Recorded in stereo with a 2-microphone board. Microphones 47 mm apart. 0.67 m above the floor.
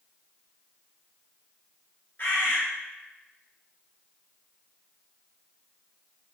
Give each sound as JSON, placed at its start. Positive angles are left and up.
{"t": 2.2, "sound": "a bird", "side_deg": 45, "distance_m": 1.0}